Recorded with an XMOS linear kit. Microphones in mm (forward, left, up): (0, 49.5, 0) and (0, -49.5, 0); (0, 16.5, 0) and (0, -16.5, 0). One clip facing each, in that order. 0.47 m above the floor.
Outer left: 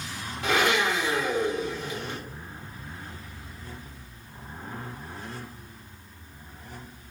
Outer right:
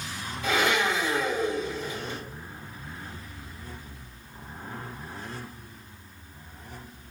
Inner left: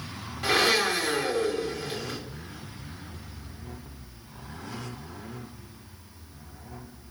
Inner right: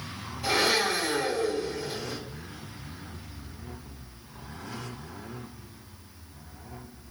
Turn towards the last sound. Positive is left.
turn(degrees=65)  # may be behind; listen again after turning